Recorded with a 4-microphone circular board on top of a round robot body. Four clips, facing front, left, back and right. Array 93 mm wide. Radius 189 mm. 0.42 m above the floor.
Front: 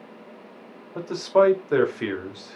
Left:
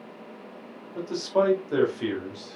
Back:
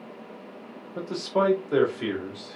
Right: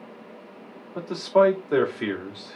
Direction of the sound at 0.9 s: 25° right.